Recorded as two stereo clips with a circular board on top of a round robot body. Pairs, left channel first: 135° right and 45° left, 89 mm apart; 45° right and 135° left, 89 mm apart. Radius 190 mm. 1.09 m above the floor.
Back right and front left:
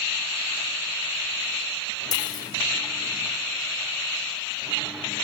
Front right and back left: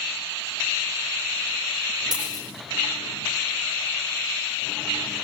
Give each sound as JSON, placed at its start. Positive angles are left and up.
{"t": 2.1, "sound": "a dropped coin", "azimuth_deg": 175, "distance_m": 7.5}